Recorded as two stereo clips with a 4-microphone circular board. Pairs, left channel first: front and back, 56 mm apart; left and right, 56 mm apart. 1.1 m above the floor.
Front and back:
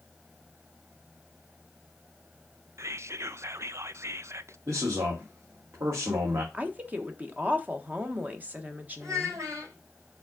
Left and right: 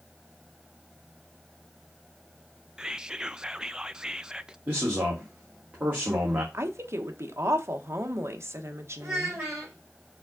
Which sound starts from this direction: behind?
Whispering, at 2.8 s.